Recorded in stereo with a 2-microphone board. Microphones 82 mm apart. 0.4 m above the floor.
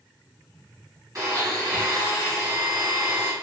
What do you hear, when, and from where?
1.1 s a blender: 40° right (ahead or behind), 1.8 m